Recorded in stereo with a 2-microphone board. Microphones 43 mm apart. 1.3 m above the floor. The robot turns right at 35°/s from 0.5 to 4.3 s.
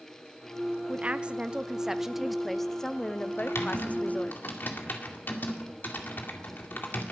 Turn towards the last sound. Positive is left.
turn(degrees=55)  # may be behind; listen again after turning